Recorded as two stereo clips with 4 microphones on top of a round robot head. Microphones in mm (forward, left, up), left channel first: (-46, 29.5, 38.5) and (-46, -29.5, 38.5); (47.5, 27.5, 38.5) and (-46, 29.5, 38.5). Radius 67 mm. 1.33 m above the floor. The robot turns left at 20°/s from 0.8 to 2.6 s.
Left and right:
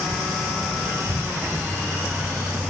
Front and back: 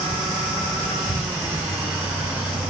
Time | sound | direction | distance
1.1 | an explosion | 110° left | 6 m